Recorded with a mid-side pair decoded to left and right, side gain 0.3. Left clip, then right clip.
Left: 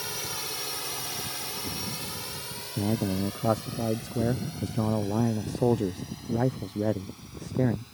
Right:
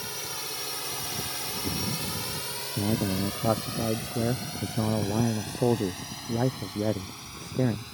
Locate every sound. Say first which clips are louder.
0.0 s a drone: left 1 dB; 25° left; by 7.9 s 75° right
2.8 s a man speaking: even; 10° left